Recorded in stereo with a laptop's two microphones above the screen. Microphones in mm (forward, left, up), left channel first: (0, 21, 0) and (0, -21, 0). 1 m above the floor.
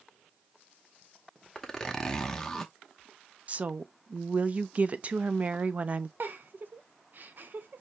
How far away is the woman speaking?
About 0.7 m.